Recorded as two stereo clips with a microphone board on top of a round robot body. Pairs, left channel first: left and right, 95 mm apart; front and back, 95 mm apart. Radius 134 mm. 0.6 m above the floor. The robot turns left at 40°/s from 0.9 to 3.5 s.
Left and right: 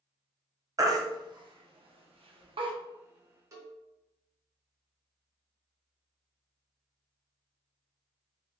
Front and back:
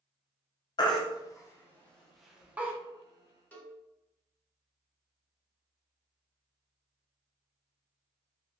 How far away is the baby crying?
About 0.6 m.